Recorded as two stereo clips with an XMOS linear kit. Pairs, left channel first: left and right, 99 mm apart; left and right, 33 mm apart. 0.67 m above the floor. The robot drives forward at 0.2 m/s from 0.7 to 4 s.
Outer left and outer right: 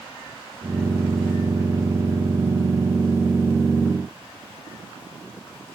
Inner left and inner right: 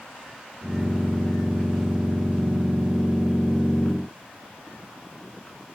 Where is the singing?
I don't hear singing.